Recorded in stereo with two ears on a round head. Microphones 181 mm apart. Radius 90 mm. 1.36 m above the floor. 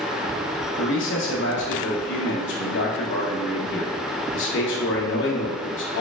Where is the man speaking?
65° left (ahead or behind), 0.9 m.